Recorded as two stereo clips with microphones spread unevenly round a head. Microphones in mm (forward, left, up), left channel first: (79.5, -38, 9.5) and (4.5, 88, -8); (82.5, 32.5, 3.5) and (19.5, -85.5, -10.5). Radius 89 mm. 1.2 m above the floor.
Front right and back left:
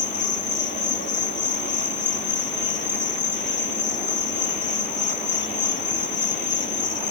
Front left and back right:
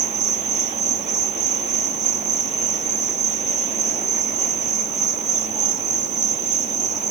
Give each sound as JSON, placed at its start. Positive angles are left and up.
{"t": 0.0, "sound": "an insect", "azimuth_deg": -90}